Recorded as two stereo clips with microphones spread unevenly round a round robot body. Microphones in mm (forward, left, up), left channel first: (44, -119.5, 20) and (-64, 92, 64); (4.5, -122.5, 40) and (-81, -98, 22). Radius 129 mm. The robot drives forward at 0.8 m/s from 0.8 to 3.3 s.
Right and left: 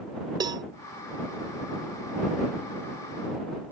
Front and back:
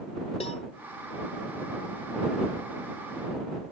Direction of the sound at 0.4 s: 40° left.